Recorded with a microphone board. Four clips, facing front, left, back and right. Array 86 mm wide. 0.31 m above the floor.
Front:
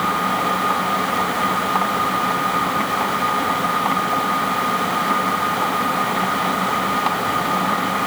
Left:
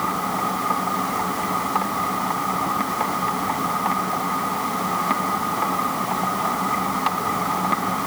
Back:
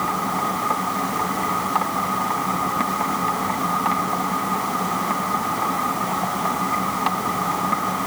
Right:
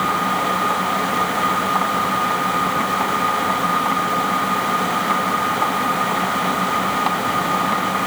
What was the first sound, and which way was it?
Only background noise.